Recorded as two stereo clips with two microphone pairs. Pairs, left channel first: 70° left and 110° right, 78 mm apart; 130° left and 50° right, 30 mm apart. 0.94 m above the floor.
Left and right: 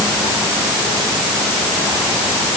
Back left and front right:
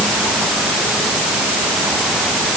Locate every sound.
Only background noise.